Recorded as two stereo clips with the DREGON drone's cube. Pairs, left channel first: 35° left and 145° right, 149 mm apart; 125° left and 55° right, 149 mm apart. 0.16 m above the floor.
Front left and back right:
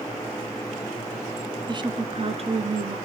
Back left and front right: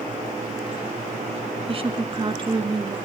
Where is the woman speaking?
95° right, 1.7 m; by 3.0 s 110° right, 3 m.